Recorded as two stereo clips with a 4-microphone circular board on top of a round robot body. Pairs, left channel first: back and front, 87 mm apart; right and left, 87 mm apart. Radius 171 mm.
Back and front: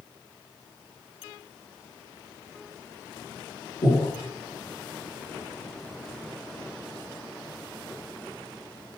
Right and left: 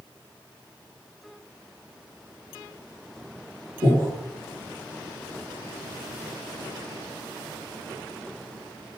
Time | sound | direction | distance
3.8 | breathing | 145° left | 5 m